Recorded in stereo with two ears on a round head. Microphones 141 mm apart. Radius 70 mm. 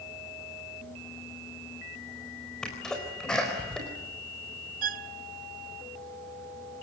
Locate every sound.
2.6 s a sneeze: 5° left (ahead or behind), 4 m
4.8 s a violin: 60° right (ahead or behind), 0.8 m